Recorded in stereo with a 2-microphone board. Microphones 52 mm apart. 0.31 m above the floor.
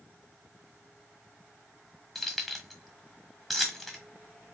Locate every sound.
2.1 s keys jangling: centre (ahead or behind), 1.4 m